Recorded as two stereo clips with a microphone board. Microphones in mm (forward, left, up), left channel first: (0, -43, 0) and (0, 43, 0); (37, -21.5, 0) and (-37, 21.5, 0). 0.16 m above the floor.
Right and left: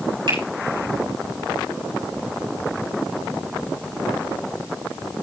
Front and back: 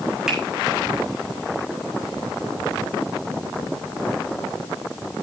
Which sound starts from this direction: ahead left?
A finger snap, at 0.3 s.